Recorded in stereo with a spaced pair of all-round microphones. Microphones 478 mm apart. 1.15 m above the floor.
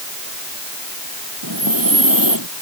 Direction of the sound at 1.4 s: 45° right (ahead or behind).